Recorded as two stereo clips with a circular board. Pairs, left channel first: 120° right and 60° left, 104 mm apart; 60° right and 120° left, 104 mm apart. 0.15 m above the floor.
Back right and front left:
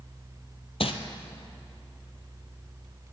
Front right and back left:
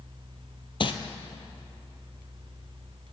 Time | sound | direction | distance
0.8 | crumpling | 95° right | 0.7 m